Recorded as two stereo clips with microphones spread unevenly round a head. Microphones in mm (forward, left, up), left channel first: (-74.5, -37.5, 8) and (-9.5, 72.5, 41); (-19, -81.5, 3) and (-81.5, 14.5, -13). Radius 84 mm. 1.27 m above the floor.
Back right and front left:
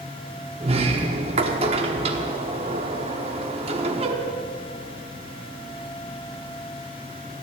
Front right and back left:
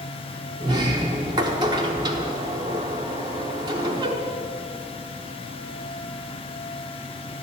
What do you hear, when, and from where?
0.6 s a sliding door: 60° left, 1.1 m